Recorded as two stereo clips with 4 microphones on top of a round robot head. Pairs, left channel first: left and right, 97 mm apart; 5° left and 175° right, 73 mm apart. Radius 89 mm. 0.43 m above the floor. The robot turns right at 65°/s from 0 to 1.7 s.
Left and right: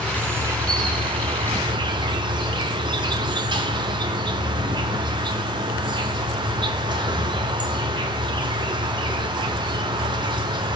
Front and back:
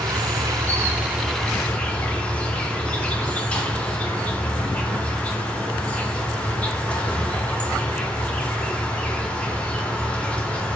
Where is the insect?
175° right, 0.9 m; by 10.8 s 65° right, 0.9 m.